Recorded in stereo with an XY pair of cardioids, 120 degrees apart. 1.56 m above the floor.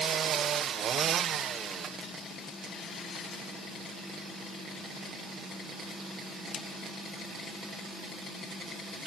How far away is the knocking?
I don't hear knocking.